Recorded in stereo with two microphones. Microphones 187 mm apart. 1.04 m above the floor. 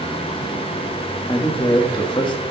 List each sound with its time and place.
1.3 s a man speaking: 25° left (ahead or behind), 1.5 m